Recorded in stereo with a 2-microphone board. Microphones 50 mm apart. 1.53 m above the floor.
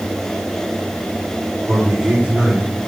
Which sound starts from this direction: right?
A man speaking, at 1.7 s.